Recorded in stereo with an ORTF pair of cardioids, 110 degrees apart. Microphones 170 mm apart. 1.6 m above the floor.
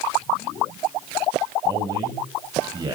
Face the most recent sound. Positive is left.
turn(degrees=-25)